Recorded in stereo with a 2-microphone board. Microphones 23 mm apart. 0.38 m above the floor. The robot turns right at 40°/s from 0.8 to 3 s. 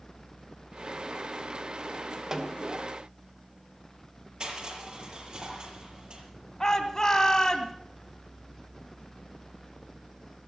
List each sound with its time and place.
2.3 s a snare drum: 25° right (ahead or behind), 1.4 m
4.4 s crushing: 45° right (ahead or behind), 6.5 m
6.6 s a shout: 25° left (ahead or behind), 2.5 m